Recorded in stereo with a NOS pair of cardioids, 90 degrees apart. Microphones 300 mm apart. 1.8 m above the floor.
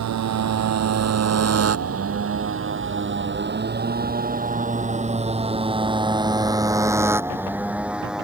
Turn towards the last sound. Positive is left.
turn(degrees=0)